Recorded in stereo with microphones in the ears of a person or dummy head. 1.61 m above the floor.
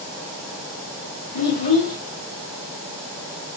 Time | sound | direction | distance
1.3 | a child speaking | 45° left (ahead or behind) | 1.7 m